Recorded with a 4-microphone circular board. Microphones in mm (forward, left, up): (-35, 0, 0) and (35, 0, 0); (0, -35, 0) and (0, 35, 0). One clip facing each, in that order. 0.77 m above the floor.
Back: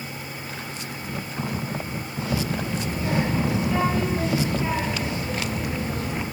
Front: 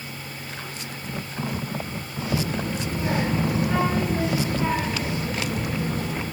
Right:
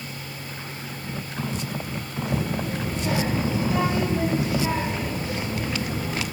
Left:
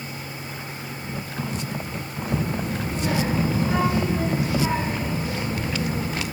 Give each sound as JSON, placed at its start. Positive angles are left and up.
{"t": 2.3, "sound": "a child speaking", "azimuth_deg": 50, "distance_m": 5.0}